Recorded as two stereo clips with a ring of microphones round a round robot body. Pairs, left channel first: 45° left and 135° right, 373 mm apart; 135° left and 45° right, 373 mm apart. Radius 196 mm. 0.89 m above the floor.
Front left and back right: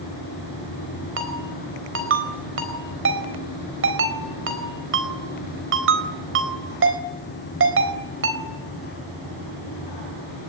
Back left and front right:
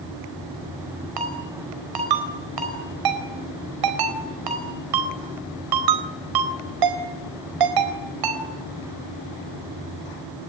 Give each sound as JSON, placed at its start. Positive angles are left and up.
{"t": 1.2, "sound": "a ringtone", "azimuth_deg": -75, "distance_m": 4.0}